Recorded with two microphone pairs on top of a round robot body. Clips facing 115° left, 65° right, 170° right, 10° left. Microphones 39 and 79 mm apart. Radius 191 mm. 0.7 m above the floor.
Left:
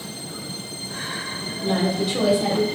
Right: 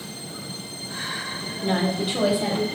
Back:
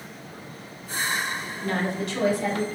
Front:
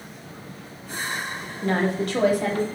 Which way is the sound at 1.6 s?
30° right.